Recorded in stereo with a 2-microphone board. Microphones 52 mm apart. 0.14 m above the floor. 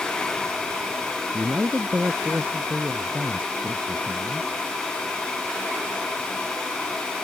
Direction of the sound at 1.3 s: 35° right (ahead or behind).